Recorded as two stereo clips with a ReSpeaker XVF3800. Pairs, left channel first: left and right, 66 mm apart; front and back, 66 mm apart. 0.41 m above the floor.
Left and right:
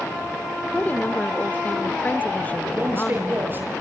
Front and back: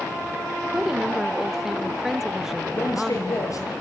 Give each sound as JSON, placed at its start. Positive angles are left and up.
{"t": 0.7, "sound": "a woman speaking", "azimuth_deg": 105, "distance_m": 0.9}
{"t": 2.7, "sound": "a man speaking", "azimuth_deg": -30, "distance_m": 8.0}